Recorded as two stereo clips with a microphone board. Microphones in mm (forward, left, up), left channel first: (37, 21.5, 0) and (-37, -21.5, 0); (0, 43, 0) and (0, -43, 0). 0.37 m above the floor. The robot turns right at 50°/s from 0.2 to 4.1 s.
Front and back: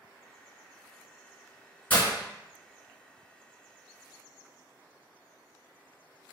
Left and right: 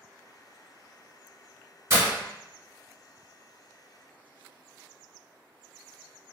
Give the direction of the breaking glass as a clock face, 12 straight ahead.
1 o'clock.